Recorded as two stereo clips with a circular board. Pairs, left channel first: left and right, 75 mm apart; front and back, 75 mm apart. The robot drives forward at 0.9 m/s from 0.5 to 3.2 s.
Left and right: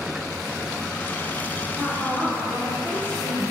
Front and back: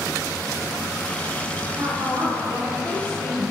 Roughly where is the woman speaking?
Behind.